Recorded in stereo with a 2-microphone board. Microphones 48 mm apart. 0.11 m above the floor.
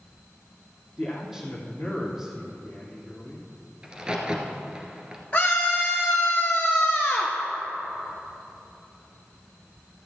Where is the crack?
20° right (ahead or behind), 1.6 m.